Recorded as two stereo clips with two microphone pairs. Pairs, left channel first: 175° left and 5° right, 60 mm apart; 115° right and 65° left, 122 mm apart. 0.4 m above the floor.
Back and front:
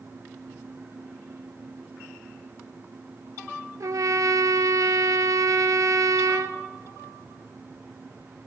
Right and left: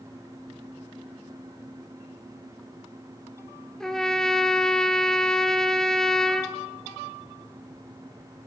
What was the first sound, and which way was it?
A trumpet, 30° right.